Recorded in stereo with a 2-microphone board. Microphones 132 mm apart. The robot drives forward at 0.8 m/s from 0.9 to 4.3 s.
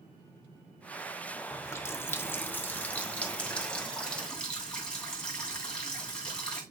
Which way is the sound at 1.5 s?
20° left (ahead or behind).